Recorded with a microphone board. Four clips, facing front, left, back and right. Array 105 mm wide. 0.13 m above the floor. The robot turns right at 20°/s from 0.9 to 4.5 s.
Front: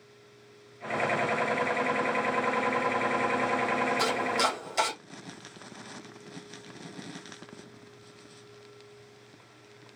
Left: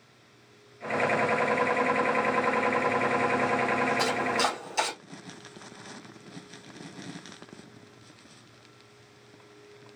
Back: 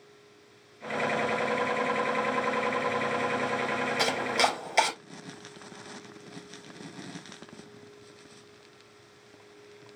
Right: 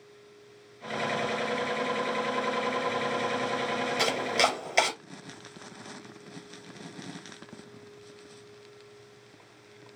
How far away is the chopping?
About 3 m.